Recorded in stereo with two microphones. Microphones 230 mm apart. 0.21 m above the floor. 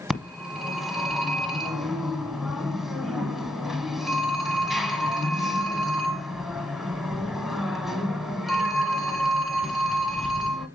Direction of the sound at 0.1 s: Centre (ahead or behind).